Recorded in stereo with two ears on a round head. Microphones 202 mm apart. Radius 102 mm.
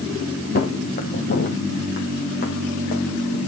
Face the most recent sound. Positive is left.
turn(degrees=40)  # may be behind; listen again after turning